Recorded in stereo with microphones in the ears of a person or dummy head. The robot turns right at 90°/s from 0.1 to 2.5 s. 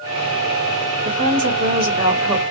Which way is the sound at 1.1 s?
125° right.